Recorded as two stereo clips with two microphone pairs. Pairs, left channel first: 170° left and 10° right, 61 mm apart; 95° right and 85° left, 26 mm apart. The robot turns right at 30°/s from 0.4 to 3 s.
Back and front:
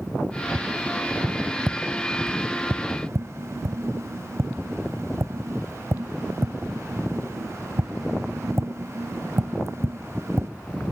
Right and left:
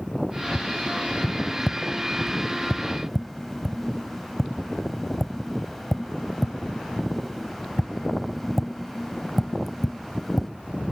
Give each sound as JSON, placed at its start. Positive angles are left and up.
{"t": 0.6, "sound": "tapping", "azimuth_deg": -85, "distance_m": 0.8}